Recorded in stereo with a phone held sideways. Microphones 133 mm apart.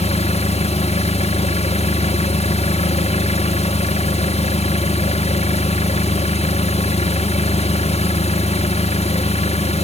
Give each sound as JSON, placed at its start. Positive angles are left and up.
{"t": 0.0, "sound": "an engine running", "side_deg": 60, "distance_m": 1.0}